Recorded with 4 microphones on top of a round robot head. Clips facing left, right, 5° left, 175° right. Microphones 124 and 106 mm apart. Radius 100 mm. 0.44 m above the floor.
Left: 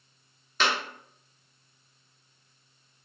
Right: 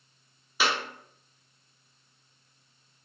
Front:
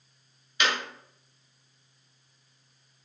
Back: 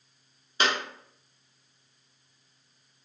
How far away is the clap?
About 0.7 m.